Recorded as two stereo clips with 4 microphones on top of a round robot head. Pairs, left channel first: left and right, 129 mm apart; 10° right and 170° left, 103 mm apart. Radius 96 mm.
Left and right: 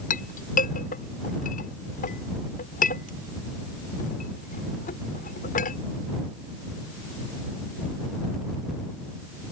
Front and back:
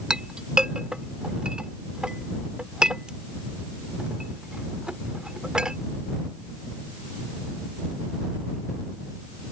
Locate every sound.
0.1 s a clink: 85° left